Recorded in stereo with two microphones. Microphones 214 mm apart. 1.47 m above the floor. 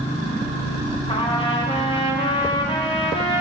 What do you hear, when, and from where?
1.1 s a trumpet: 25° left (ahead or behind), 1.4 m